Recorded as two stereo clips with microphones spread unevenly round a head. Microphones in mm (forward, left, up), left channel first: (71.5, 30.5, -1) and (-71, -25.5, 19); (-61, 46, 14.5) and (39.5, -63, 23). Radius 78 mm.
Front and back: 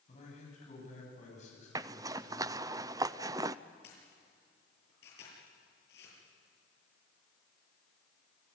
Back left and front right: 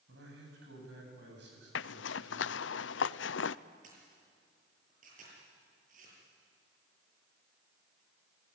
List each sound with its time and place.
0.1 s a man speaking: 25° right, 9 m
1.8 s a zipper: 135° left, 0.5 m
3.8 s a camera shutter: 5° right, 7.5 m